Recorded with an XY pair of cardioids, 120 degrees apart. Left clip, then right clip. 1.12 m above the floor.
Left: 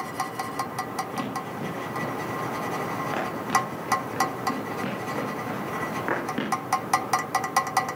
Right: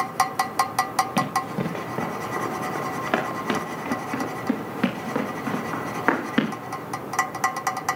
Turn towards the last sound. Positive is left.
turn(degrees=-50)